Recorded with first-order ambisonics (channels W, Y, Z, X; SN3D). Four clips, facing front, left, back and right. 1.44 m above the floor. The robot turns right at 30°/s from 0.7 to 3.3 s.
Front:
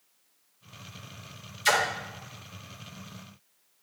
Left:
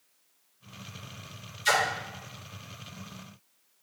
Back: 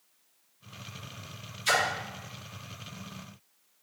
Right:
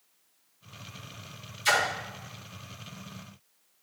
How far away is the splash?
About 1.5 m.